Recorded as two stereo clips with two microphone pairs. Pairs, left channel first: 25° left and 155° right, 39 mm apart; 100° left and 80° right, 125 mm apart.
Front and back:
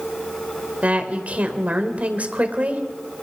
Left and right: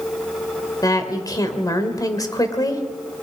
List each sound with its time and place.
0.8 s a woman speaking: 155° left, 2.5 m